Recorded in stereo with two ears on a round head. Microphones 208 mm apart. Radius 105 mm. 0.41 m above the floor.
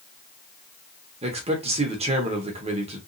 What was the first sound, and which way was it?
A man speaking, 25° right (ahead or behind).